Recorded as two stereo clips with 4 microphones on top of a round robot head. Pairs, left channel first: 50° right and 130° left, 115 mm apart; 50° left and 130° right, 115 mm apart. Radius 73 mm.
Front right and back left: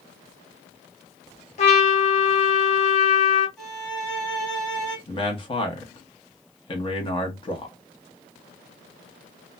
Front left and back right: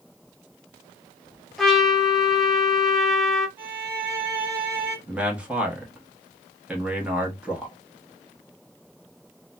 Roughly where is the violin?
Behind right.